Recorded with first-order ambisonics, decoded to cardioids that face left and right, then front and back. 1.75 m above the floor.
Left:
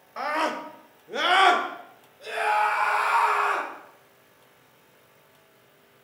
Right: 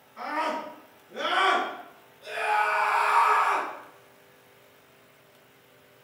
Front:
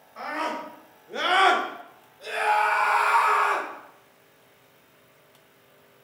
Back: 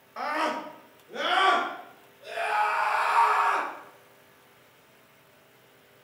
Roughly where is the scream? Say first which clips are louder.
Left 3 dB, back 1 dB; left.